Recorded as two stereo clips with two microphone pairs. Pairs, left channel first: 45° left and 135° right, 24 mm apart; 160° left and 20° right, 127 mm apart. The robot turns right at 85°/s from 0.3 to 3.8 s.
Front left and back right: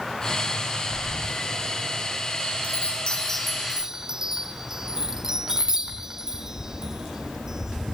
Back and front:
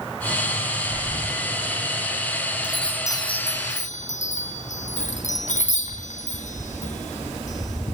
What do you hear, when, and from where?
0.9 s breathing: 130° left, 6.5 m; by 1.4 s 170° left, 6.5 m
2.6 s a chime: 60° left, 4 m; by 8.0 s 155° left, 4 m